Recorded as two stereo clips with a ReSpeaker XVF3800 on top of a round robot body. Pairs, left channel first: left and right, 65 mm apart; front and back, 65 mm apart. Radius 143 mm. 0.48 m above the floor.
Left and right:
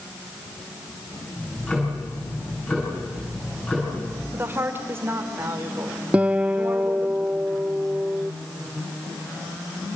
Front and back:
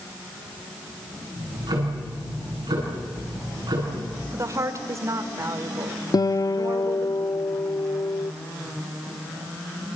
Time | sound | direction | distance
1.4 | ticking | 160° left | 9 m
4.3 | a woman speaking | 145° right | 2.5 m
6.1 | a guitar | 20° right | 0.8 m